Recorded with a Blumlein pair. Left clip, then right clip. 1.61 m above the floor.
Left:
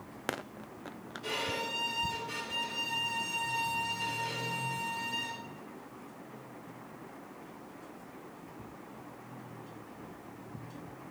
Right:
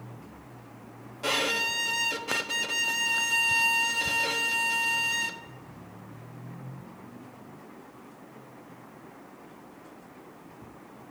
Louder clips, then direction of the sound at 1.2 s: Right 8 dB; 55° right.